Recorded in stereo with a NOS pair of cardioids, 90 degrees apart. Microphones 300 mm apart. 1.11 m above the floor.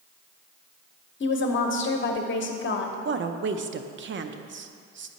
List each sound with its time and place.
1.2 s a woman speaking: 40° left, 1.0 m
3.0 s a woman speaking: 40° right, 0.6 m